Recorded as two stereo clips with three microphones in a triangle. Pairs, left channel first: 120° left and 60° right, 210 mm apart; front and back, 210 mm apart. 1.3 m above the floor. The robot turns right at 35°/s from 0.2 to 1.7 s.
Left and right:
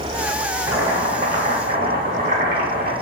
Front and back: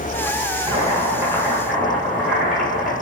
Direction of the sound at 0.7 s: 130° right.